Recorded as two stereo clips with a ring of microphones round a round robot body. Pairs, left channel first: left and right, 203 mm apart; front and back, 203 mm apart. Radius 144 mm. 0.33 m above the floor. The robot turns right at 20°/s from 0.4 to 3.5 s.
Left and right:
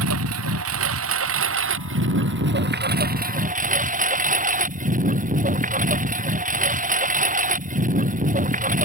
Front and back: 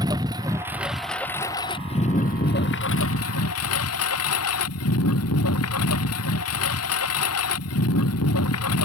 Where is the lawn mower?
100° right; by 8.9 s 40° right.